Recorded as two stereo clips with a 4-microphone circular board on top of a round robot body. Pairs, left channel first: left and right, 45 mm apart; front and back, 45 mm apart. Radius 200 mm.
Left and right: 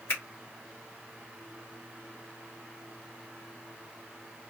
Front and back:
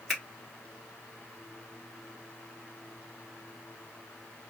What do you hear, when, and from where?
0.1 s a finger snap: 85° left, 1.5 m